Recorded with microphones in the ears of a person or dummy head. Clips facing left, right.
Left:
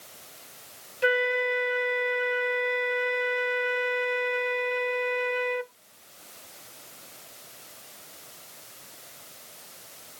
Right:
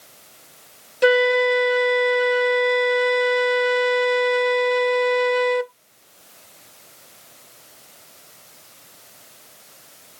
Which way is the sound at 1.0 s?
55° right (ahead or behind).